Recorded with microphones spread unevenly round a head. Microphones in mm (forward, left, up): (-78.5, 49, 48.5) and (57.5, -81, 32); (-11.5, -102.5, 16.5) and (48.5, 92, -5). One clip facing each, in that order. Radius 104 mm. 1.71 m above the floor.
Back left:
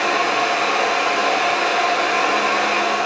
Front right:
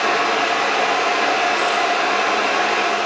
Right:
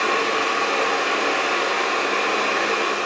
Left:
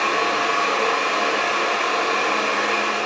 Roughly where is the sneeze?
I don't hear a sneeze.